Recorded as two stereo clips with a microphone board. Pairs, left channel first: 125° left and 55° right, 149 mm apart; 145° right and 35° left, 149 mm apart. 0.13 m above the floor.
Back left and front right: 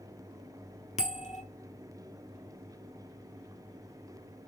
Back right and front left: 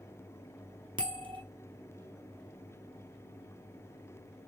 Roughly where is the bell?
Left.